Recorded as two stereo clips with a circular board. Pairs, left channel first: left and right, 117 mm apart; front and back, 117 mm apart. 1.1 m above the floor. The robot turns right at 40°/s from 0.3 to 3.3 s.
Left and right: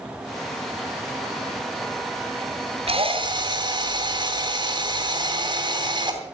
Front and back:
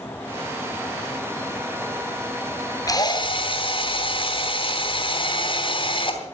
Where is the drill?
60° right, 3 m; by 6.2 s 40° right, 3 m.